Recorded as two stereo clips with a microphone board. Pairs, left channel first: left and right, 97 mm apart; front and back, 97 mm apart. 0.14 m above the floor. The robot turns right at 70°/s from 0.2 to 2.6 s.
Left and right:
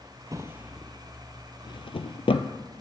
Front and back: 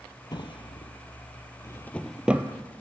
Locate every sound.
0.3 s a drawer: 40° right, 0.7 m; by 2.5 s 115° left, 0.7 m